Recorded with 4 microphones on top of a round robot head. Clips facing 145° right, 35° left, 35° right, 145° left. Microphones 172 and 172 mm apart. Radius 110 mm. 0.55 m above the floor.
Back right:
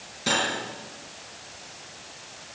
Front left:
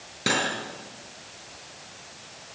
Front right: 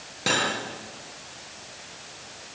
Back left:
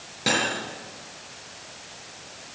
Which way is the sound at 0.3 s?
55° left.